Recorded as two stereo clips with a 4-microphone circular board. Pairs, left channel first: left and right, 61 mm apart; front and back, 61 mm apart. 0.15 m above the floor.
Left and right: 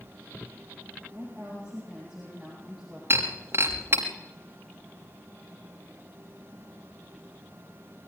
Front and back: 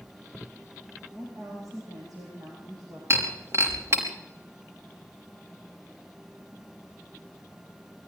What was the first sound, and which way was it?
A woman speaking, 165° right.